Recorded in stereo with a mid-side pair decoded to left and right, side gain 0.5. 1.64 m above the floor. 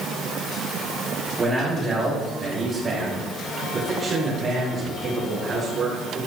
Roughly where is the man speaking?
Ahead.